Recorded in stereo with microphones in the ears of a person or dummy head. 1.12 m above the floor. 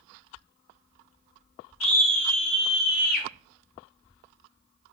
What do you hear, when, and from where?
1.8 s a scream: 75° left (ahead or behind), 2 m; by 3.3 s 45° left (ahead or behind), 1.7 m